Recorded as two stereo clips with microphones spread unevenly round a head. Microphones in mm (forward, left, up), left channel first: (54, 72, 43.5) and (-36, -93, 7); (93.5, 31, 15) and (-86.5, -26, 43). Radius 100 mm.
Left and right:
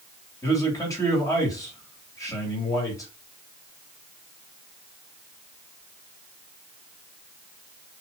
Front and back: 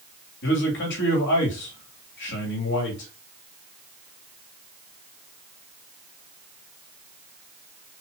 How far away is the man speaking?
About 3 m.